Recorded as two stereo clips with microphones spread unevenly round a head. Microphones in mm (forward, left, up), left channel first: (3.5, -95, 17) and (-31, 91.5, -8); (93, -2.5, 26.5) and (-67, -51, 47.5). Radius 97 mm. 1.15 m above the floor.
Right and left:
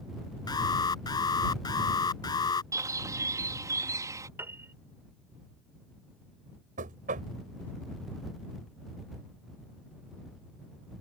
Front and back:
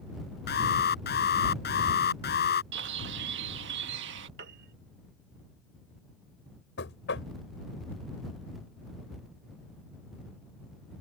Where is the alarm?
10° right.